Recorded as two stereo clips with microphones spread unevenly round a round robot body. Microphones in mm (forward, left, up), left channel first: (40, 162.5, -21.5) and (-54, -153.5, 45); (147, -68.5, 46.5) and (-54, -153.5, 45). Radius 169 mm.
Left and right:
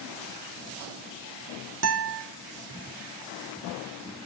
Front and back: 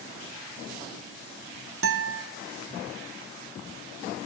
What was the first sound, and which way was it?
A guitar, 155° right.